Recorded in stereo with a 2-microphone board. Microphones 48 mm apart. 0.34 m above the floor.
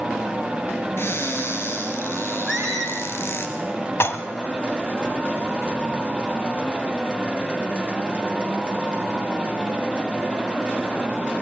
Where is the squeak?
5° left (ahead or behind), 2.5 m.